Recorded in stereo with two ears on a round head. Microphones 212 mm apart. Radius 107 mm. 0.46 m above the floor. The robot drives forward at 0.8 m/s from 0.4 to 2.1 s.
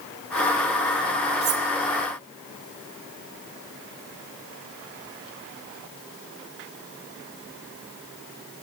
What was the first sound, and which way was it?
Cutlery clinking, 45° right (ahead or behind).